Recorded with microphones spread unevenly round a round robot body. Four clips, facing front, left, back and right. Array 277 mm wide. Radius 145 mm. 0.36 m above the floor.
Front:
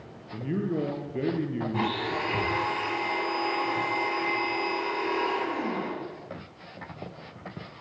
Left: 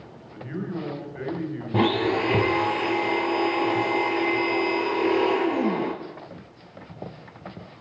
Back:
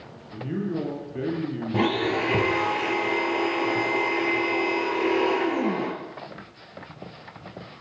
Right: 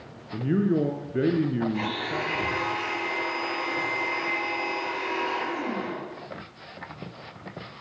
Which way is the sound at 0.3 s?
85° right.